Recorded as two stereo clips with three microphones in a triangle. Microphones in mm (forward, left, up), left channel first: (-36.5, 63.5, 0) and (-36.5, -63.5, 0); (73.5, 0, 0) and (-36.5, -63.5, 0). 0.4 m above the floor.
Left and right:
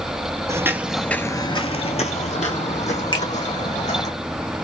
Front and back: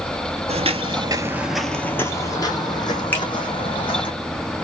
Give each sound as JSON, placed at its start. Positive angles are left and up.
{"t": 0.5, "sound": "footsteps", "azimuth_deg": -150, "distance_m": 0.6}
{"t": 3.1, "sound": "a finger snap", "azimuth_deg": 95, "distance_m": 1.5}